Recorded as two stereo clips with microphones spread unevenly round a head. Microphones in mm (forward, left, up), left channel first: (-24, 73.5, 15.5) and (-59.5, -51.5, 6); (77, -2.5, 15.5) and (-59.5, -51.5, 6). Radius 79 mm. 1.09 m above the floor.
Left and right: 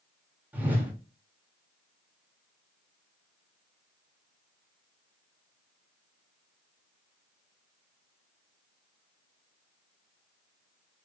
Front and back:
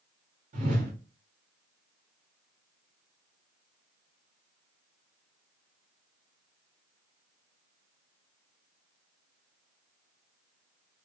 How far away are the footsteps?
No footsteps in this recording.